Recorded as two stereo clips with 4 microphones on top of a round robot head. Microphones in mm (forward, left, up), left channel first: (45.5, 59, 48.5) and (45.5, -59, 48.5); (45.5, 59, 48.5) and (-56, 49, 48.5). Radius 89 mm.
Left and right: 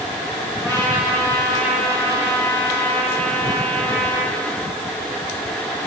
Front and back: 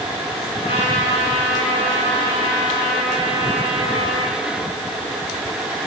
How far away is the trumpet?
About 8.5 m.